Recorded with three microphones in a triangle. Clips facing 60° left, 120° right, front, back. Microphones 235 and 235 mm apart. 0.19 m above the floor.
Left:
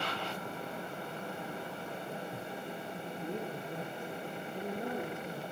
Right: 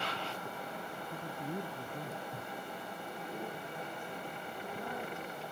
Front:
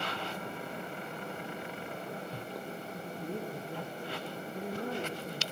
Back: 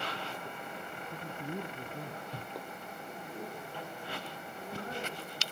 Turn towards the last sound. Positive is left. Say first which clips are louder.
# left 5 dB, front 6 dB
turn(degrees=10)